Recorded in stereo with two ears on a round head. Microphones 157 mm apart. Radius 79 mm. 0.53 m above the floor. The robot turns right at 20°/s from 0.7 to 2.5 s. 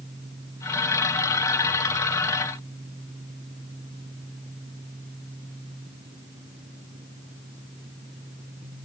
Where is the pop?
I don't hear a pop.